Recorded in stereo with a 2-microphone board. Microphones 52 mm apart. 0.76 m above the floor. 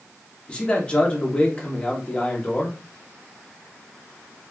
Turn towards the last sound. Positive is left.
turn(degrees=20)  # may be behind; listen again after turning